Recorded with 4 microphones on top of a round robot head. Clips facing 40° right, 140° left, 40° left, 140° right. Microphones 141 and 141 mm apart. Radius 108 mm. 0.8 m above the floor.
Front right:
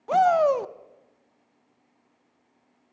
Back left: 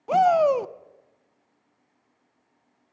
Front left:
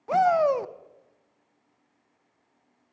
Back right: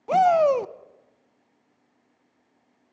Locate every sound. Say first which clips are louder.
0.1 s a shout: back left 1 dB, back right 3 dB; 160° right, 0.5 m